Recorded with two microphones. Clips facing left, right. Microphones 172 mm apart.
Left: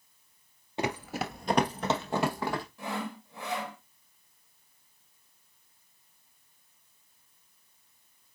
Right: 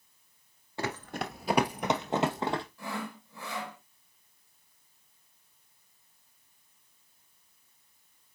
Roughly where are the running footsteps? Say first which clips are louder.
Left 3 dB; centre.